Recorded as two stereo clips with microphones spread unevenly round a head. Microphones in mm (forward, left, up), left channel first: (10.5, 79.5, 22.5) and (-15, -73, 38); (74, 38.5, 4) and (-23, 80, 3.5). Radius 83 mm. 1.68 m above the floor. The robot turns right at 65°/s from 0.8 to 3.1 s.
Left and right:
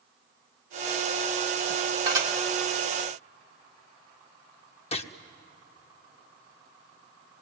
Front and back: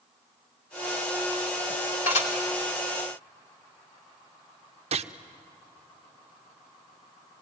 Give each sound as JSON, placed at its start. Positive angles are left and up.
{"t": 2.1, "sound": "dishes clattering", "azimuth_deg": -40, "distance_m": 3.0}
{"t": 4.9, "sound": "a gunshot", "azimuth_deg": 135, "distance_m": 0.8}